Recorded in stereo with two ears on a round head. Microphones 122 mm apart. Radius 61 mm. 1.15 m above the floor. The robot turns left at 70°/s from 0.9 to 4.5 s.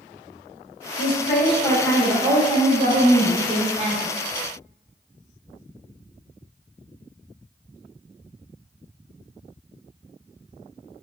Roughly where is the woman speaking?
Left.